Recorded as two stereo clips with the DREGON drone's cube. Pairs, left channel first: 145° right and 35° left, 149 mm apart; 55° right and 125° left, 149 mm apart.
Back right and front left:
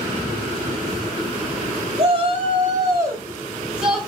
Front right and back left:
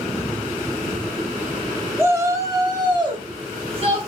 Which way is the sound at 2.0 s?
55° left.